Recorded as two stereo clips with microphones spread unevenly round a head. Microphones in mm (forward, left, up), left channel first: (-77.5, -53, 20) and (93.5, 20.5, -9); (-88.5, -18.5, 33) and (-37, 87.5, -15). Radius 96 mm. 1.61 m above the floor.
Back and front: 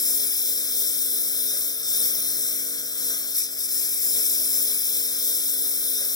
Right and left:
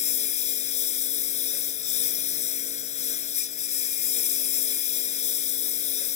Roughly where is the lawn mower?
Right.